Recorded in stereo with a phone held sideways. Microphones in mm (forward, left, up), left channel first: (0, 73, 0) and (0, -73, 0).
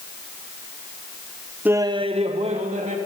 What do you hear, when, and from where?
1.6 s laughter: 10° right (ahead or behind), 0.7 m; by 3.0 s 50° right (ahead or behind), 2.5 m